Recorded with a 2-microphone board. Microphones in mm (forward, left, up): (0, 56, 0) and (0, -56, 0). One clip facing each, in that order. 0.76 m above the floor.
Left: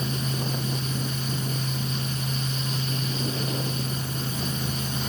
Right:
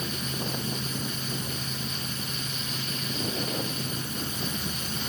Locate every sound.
Only background noise.